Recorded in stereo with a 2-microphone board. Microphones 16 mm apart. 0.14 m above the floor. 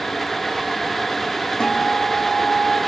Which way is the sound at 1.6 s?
50° left (ahead or behind).